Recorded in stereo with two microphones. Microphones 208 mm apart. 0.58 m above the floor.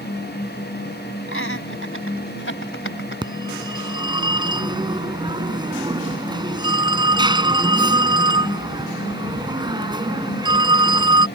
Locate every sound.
1.3 s laughter: 80° left; by 3.2 s 70° left (ahead or behind)
3.2 s a phone ringing: 20° right (ahead or behind)